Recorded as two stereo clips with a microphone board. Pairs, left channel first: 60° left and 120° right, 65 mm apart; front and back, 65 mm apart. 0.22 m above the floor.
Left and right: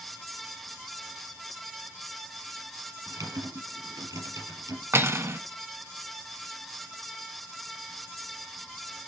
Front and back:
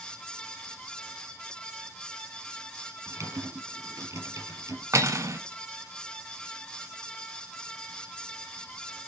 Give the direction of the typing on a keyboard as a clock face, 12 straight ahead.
5 o'clock.